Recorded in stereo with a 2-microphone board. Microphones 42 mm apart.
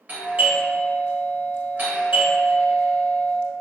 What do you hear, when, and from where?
0.1 s a doorbell: 40° right (ahead or behind), 1.0 m